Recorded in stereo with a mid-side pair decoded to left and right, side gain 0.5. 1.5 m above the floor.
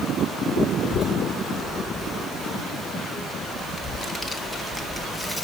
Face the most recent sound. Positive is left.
turn(degrees=-5)